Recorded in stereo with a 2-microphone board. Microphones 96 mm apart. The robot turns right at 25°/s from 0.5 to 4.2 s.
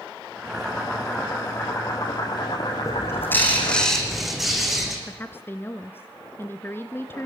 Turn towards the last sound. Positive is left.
turn(degrees=20)  # may be behind; listen again after turning